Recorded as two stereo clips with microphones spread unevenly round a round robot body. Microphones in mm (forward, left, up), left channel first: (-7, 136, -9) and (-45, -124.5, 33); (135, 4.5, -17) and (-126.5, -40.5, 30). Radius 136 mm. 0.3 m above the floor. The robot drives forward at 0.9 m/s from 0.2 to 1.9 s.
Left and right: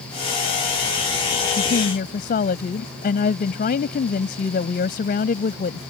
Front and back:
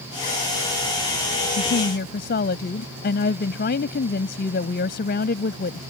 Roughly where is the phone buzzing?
I don't hear a phone buzzing.